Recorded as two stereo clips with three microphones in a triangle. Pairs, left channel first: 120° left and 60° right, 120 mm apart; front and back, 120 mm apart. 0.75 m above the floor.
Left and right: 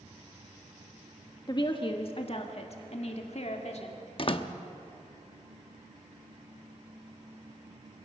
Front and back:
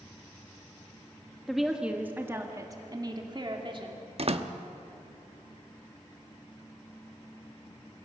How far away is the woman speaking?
About 1.3 m.